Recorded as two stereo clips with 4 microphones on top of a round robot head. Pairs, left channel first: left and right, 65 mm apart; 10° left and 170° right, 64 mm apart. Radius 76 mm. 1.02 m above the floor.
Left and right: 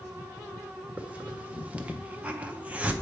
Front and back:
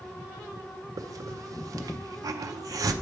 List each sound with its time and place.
1.0 s a hiss: 155° right, 0.6 m